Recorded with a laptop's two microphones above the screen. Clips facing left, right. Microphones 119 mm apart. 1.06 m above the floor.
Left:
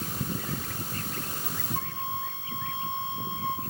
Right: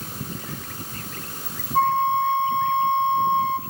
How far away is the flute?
About 1.9 m.